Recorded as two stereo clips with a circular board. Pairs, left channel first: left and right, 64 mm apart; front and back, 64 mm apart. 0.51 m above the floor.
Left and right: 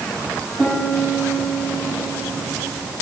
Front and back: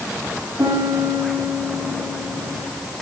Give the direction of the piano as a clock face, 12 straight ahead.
6 o'clock.